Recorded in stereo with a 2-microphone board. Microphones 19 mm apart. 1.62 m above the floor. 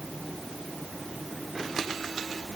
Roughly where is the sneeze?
I don't hear a sneeze.